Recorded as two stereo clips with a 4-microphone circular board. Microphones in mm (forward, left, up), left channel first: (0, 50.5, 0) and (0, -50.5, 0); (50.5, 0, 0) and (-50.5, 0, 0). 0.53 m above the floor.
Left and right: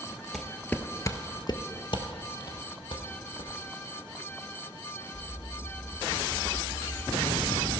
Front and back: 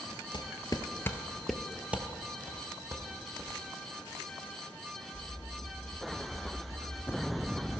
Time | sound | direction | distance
0.3 | footsteps | straight ahead | 0.7 m